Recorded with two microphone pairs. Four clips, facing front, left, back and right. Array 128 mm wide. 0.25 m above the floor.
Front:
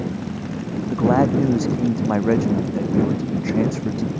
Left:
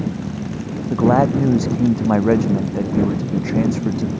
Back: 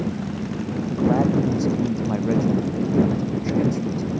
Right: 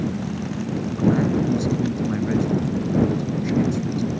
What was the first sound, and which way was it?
A man speaking, 65° left.